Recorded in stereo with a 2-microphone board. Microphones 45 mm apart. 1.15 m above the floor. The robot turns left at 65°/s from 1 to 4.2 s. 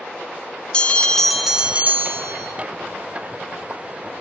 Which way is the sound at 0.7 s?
20° left.